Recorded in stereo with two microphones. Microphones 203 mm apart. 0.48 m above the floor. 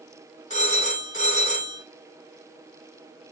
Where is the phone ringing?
35° left (ahead or behind), 2.5 m.